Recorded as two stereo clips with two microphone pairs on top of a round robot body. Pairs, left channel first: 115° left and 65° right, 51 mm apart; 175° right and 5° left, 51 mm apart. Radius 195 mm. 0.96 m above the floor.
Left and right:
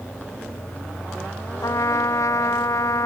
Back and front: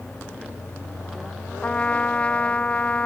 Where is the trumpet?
115° left.